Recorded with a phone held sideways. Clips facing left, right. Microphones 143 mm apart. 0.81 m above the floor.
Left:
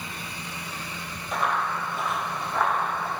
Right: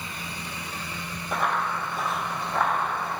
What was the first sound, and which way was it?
Running footsteps, 55° right (ahead or behind).